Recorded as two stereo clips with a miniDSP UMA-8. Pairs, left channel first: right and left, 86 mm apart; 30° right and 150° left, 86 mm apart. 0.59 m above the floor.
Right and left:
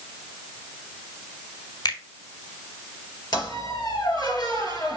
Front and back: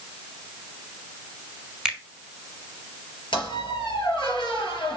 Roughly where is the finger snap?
Behind right.